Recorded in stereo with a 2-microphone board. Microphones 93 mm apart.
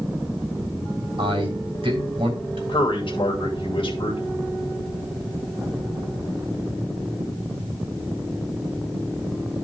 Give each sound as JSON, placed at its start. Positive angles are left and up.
{"t": 1.2, "sound": "a man speaking", "side_deg": -70, "distance_m": 3.0}
{"t": 2.7, "sound": "a man speaking", "side_deg": 60, "distance_m": 2.5}